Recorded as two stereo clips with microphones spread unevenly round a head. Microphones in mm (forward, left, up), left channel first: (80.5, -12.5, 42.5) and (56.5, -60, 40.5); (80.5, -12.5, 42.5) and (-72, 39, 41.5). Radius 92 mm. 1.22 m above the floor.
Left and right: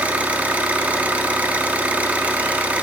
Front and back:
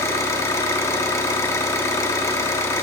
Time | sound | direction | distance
0.0 | an engine running | 80° right | 0.7 m